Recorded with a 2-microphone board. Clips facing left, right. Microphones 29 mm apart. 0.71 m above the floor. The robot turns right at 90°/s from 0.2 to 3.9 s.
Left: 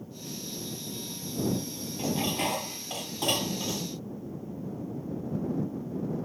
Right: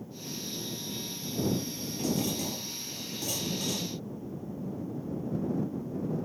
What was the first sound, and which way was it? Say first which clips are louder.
Dishes clattering: left 2 dB; 15° left.